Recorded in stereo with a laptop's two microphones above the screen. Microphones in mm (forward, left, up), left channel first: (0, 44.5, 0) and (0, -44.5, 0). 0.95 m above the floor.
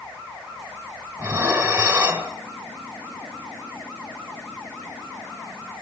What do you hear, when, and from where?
1.2 s dishes clattering: 20° right (ahead or behind), 2.5 m